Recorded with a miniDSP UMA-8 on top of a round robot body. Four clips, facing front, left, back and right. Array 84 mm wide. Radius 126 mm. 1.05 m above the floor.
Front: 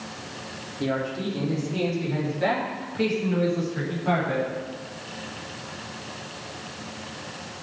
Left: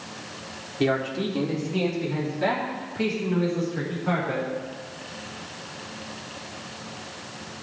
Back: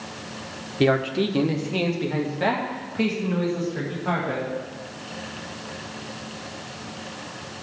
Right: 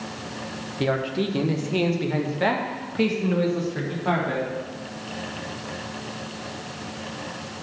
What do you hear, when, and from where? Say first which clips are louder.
0.8 s a man speaking: even, back 7 dB; straight behind, 1.1 m; by 4.5 s 100° right, 3.5 m